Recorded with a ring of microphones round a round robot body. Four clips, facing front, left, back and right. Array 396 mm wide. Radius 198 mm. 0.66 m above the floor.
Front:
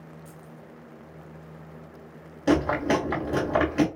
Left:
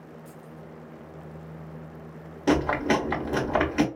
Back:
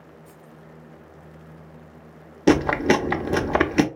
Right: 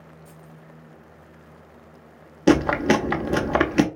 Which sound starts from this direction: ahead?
Keys jangling, at 0.2 s.